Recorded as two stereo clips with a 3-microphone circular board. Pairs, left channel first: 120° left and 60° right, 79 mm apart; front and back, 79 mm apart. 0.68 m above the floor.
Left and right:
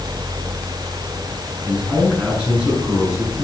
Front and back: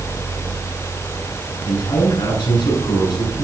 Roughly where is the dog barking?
No dog barking in this recording.